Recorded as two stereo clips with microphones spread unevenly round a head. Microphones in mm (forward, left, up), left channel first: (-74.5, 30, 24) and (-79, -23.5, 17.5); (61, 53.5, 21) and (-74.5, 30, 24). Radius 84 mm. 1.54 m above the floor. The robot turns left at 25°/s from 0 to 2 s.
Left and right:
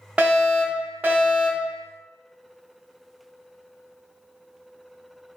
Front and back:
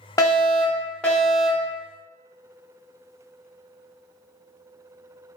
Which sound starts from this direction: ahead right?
A fire alarm, at 0.2 s.